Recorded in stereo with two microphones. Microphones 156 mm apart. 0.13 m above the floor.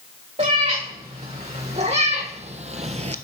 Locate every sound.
0.4 s a cat meowing: 45° right (ahead or behind), 3 m; by 3.2 s 50° right (ahead or behind), 0.5 m